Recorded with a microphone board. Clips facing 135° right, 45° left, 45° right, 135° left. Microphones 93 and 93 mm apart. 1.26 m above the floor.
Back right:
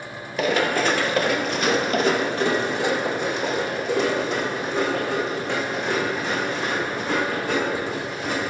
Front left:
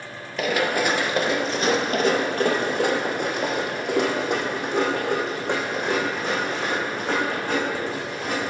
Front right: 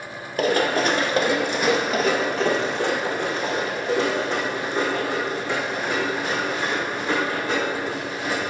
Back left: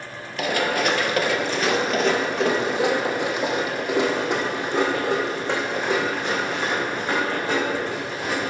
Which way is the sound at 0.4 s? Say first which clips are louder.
Back right 1 dB, front right 2 dB; 45° right.